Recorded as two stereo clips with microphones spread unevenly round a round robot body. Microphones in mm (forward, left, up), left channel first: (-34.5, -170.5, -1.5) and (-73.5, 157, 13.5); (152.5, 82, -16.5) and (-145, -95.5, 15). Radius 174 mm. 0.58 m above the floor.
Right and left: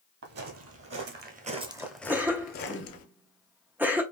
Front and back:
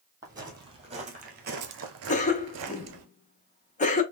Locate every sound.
0.2 s footsteps: 135° left, 1.3 m; by 3.0 s 115° right, 0.9 m
2.1 s a cough: 15° left, 0.6 m